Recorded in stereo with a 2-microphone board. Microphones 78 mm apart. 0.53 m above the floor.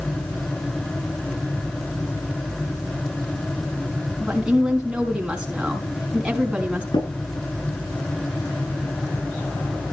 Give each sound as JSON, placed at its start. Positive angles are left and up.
{"t": 4.2, "sound": "a woman speaking", "side_deg": -10, "distance_m": 5.0}
{"t": 6.9, "sound": "tapping", "side_deg": 80, "distance_m": 8.0}